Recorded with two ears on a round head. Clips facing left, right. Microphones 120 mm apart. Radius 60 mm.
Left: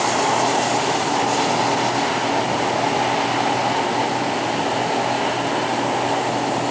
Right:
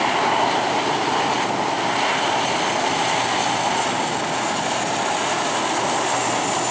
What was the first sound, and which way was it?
Only background noise.